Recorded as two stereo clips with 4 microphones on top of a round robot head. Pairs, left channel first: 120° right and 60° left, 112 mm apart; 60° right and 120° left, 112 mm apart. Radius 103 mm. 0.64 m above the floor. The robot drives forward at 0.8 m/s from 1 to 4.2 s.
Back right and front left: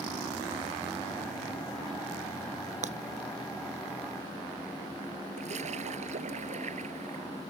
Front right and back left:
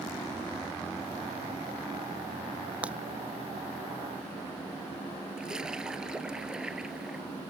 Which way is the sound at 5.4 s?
40° left.